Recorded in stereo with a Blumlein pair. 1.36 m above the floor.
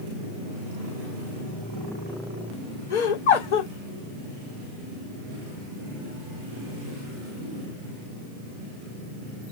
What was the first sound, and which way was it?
Laughter, 60° left.